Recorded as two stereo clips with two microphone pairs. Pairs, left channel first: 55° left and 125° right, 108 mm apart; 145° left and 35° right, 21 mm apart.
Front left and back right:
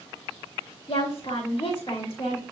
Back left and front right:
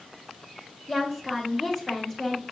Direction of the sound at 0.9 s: 80° left.